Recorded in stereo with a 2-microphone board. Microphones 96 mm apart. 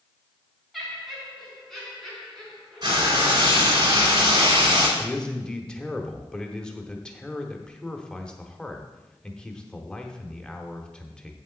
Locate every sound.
0.7 s laughter: centre (ahead or behind), 3.5 m; by 3.8 s 5° left (ahead or behind), 5.5 m
2.8 s frying: 45° right (ahead or behind), 2.5 m
5.0 s a man speaking: 10° left (ahead or behind), 1.0 m